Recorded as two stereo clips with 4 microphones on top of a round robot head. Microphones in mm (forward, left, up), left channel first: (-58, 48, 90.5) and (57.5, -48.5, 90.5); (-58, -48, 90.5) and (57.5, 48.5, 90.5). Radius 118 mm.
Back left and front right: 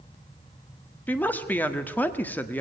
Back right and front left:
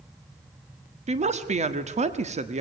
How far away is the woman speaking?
About 1.6 m.